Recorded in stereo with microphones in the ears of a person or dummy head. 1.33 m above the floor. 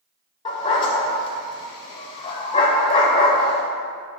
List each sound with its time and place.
0.5 s a dog barking: 25° left (ahead or behind), 1.7 m